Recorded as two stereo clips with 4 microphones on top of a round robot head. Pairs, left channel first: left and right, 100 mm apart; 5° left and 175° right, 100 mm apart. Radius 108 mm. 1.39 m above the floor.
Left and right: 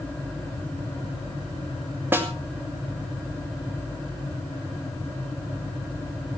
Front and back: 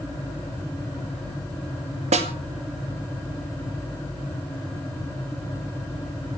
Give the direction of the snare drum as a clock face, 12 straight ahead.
5 o'clock.